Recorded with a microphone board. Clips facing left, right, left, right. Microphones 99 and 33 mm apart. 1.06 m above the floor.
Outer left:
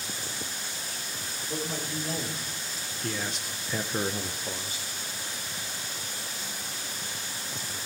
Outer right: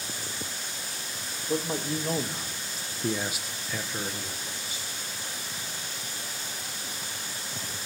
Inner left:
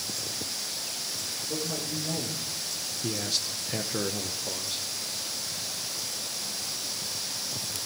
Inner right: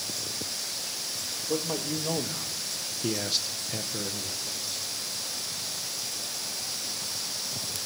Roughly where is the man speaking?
Right.